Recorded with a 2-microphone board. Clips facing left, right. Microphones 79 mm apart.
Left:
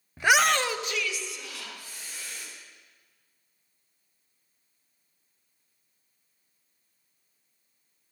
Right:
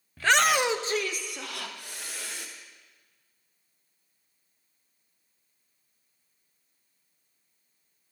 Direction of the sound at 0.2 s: 20° left (ahead or behind).